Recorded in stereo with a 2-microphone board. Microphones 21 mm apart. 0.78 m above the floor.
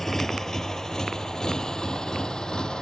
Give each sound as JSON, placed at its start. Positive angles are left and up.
{"t": 0.0, "sound": "a motorcycle", "side_deg": 20}